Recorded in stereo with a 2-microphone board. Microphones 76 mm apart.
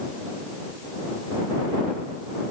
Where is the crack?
No crack in this recording.